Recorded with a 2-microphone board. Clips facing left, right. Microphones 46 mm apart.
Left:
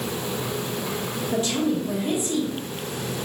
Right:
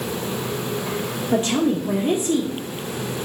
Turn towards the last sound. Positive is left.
turn(degrees=-40)  # may be behind; listen again after turning